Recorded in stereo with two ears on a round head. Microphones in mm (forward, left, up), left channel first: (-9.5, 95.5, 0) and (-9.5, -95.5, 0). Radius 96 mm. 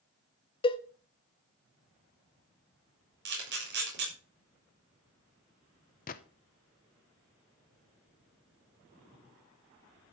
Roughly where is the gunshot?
Left.